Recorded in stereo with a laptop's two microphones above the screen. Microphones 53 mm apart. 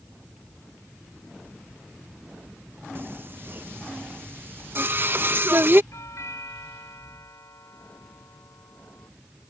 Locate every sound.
3.0 s singing: 40° right (ahead or behind)
5.9 s a doorbell: 70° left (ahead or behind)